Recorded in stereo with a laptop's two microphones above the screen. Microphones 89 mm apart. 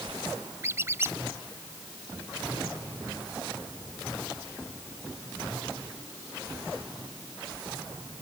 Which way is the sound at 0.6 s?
30° right (ahead or behind).